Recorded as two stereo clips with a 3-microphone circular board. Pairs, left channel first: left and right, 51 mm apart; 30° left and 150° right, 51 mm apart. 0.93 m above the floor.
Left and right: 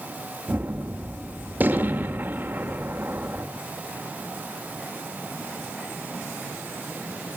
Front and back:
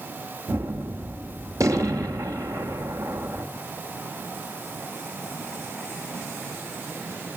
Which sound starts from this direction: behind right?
A gunshot, at 0.5 s.